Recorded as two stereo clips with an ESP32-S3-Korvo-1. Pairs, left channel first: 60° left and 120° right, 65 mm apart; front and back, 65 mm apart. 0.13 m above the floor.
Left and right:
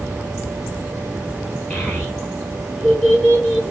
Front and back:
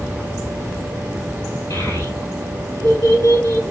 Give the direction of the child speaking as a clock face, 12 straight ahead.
12 o'clock.